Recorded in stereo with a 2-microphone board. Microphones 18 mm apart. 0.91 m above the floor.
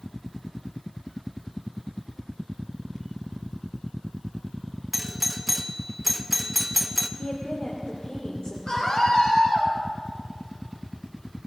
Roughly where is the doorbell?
Centre.